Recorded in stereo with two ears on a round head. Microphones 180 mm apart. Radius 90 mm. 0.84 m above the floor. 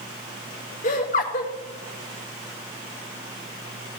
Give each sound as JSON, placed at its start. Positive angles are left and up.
{"t": 0.8, "sound": "laughter", "side_deg": 40, "distance_m": 2.0}